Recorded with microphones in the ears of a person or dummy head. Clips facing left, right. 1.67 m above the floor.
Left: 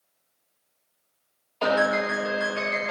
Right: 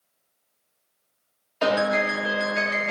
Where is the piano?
15° right (ahead or behind), 1.8 m.